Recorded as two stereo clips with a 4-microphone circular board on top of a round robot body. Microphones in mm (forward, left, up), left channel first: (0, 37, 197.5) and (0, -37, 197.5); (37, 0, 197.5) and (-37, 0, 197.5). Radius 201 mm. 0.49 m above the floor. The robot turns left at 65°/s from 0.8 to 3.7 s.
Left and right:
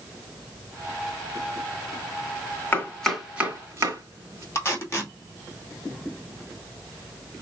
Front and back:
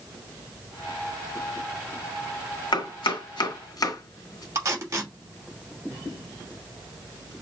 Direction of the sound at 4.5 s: 140° left.